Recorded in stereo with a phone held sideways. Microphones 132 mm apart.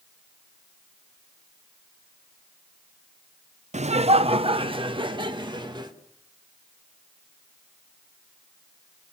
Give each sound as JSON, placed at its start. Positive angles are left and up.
{"t": 3.7, "sound": "laughter", "side_deg": -60, "distance_m": 0.6}